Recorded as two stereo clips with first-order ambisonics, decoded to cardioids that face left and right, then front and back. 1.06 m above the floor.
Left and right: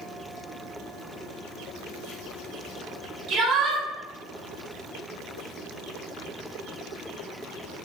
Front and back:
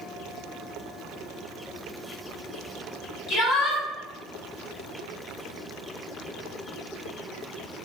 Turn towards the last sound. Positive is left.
turn(degrees=-50)